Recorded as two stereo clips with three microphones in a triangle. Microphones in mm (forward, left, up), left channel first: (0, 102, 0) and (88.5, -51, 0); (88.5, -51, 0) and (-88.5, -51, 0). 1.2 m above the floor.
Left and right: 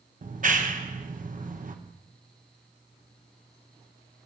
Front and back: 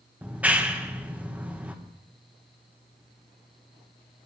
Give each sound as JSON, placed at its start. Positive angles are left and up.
{"t": 0.2, "sound": "a clap", "azimuth_deg": -100, "distance_m": 1.0}